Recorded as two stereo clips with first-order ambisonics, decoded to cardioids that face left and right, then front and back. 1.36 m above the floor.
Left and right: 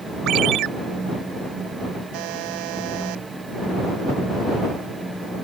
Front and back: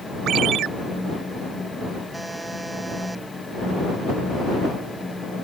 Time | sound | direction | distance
0.3 | a ringtone | 135° right | ?
2.1 | a buzzer | 100° right | ?